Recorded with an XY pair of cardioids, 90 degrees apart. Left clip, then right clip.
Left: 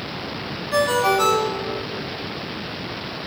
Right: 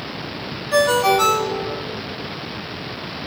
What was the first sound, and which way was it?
A ringtone, 40° right.